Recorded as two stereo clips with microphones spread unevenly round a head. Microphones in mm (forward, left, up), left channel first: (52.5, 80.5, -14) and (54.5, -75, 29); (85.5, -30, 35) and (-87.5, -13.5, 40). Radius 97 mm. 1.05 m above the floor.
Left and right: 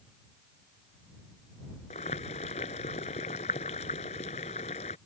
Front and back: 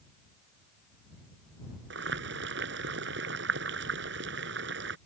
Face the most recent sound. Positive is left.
turn(degrees=150)